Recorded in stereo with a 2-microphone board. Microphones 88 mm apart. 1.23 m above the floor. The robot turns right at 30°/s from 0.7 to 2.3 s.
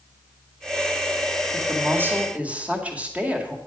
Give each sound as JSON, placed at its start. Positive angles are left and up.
{"t": 1.5, "sound": "a woman speaking", "side_deg": -40, "distance_m": 2.0}